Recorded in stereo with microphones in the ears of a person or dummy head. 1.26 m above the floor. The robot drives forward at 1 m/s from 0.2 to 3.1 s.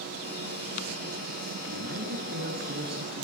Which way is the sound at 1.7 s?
80° right.